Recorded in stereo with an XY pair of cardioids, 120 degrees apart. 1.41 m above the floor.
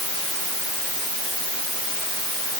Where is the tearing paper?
I don't hear tearing paper.